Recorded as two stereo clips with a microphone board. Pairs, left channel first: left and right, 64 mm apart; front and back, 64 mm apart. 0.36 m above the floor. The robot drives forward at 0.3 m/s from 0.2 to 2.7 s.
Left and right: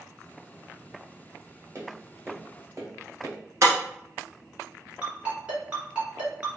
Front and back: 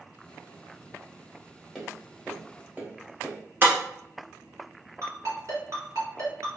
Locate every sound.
1.8 s tapping: 100° right, 0.8 m; by 3.4 s 120° right, 0.9 m
3.6 s breaking glass: 130° right, 1.0 m
5.0 s a ringtone: 155° right, 1.8 m